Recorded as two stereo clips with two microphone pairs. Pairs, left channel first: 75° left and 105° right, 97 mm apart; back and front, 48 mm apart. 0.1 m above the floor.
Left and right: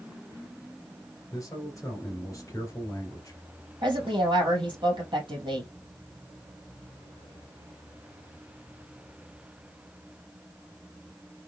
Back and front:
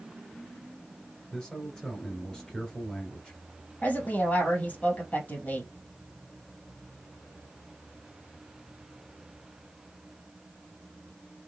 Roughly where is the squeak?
No squeak in this recording.